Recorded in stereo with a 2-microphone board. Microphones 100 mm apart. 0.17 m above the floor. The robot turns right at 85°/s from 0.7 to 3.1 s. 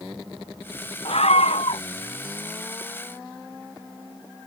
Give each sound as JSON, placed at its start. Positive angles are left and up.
{"t": 1.1, "sound": "a scream", "azimuth_deg": 60}